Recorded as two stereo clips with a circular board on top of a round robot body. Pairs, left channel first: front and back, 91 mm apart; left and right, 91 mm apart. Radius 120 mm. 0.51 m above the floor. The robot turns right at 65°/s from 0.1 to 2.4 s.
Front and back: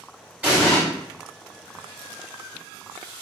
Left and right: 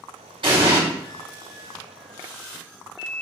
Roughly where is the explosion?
Right.